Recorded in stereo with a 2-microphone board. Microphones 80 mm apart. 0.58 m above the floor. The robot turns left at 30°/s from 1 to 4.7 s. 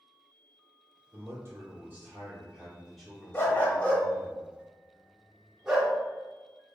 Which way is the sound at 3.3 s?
35° left (ahead or behind).